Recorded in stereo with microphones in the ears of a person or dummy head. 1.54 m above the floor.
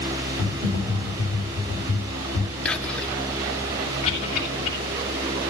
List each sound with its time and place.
0.4 s typing on a keyboard: 30° left (ahead or behind), 7.5 m
2.6 s whispering: centre (ahead or behind), 1.5 m
4.0 s a cough: 30° left (ahead or behind), 7 m